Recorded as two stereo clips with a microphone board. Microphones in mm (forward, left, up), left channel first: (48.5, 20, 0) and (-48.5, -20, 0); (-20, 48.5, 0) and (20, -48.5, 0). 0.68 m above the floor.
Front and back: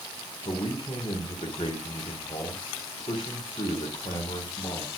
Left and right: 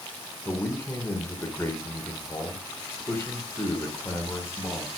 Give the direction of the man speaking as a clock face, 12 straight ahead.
10 o'clock.